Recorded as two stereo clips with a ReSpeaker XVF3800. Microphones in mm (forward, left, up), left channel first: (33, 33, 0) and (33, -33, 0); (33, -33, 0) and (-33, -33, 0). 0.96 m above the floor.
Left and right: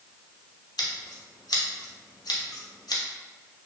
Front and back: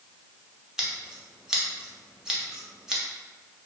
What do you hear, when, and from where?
0.8 s scissors: 100° left, 0.5 m